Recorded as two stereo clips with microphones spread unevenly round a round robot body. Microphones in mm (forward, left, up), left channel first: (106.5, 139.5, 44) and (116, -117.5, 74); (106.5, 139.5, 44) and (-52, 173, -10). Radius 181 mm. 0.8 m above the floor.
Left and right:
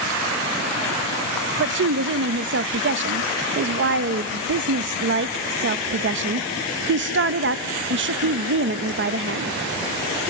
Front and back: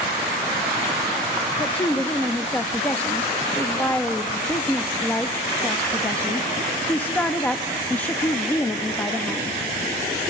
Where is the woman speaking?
110° right, 0.6 m.